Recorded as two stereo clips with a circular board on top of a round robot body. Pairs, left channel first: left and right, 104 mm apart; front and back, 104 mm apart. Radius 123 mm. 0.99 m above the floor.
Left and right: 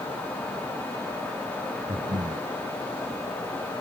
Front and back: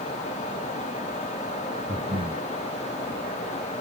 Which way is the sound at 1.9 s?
145° right.